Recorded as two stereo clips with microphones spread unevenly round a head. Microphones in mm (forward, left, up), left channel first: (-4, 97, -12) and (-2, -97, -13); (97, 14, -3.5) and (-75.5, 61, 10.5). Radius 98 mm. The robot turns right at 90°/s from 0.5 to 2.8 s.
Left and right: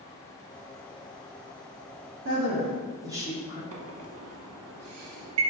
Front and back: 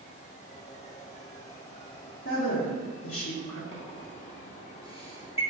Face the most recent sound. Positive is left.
turn(degrees=-80)